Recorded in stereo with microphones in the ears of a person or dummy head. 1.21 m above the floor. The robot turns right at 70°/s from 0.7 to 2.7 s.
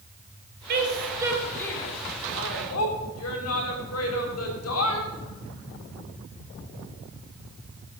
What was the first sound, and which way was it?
A woman speaking, 50° right (ahead or behind).